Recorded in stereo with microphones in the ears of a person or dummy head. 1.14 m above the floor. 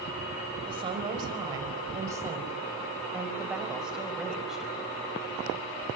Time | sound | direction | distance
0.7 | a woman speaking | 30° right (ahead or behind) | 5 m